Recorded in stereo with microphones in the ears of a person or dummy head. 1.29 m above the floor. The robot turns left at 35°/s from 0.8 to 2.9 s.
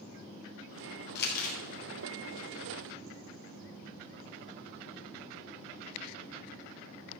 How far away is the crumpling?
About 3 m.